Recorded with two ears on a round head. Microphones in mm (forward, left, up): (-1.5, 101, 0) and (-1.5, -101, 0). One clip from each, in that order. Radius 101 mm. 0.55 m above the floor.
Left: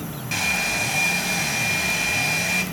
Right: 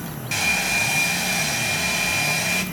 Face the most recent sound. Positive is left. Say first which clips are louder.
# right 2 dB
turn(degrees=-10)  # may be behind; listen again after turning